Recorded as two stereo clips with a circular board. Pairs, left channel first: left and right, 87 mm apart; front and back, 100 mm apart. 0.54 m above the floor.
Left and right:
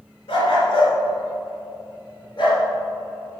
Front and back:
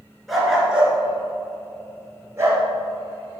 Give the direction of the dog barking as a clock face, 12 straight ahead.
9 o'clock.